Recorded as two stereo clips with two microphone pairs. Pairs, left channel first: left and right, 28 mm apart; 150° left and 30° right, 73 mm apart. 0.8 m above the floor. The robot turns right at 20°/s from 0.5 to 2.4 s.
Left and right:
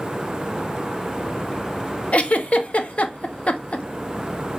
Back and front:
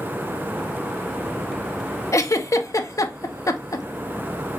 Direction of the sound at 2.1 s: 110° left.